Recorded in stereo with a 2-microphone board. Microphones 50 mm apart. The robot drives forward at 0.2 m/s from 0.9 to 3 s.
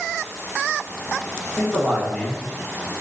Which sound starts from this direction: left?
A man speaking, at 1.6 s.